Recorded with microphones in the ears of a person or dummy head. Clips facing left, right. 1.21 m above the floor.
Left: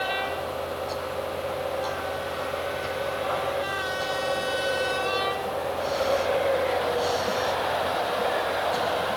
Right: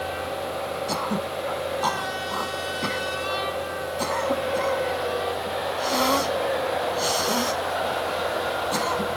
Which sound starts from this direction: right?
Throat clearing, at 0.9 s.